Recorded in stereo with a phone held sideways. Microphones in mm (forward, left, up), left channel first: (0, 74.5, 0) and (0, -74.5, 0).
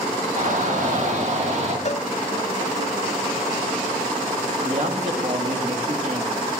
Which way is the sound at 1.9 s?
50° left (ahead or behind).